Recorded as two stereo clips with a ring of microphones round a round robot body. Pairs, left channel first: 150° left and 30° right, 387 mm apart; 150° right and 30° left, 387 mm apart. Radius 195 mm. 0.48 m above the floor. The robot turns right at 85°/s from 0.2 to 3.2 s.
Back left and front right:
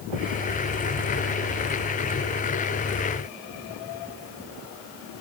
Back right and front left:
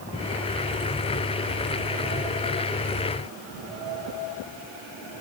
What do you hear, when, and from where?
Only background noise.